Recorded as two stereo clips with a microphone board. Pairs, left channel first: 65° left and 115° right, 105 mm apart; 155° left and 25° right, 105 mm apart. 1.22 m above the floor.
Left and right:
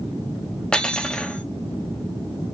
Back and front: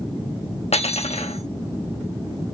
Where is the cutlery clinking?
150° left, 1.2 m.